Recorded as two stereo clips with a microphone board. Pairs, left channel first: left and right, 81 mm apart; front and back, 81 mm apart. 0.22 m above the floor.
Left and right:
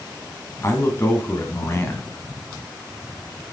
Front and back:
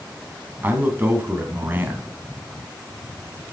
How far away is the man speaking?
About 1.7 m.